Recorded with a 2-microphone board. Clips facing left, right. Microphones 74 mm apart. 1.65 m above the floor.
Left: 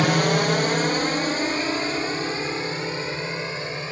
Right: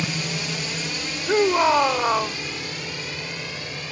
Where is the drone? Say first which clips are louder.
Left 9 dB; 60° left (ahead or behind); by 3.9 s 30° left (ahead or behind).